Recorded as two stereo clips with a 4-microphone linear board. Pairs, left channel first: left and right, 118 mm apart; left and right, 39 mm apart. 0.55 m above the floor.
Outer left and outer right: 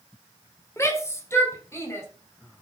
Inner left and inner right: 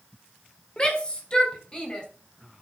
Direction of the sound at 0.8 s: 25° left (ahead or behind).